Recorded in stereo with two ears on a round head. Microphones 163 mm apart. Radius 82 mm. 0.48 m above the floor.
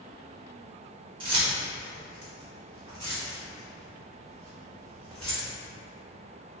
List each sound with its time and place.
1.2 s keys jangling: 30° right (ahead or behind), 0.8 m; by 5.5 s 20° right (ahead or behind), 3.5 m